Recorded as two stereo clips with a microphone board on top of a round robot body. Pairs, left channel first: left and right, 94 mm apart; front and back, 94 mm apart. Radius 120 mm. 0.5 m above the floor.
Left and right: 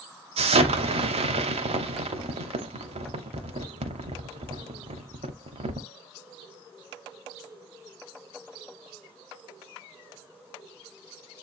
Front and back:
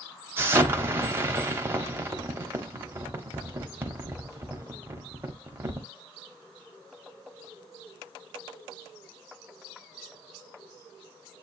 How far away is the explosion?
About 0.7 m.